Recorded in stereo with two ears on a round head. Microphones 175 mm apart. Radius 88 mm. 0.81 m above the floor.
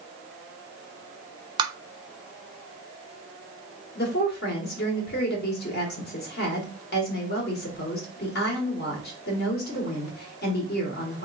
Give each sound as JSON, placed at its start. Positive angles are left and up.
{"t": 1.6, "sound": "tapping", "side_deg": -20, "distance_m": 0.5}
{"t": 4.0, "sound": "a woman speaking", "side_deg": 55, "distance_m": 1.5}